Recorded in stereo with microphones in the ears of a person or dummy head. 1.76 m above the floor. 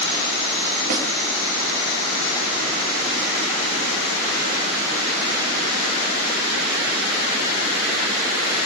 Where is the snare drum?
55° right (ahead or behind), 3.5 m.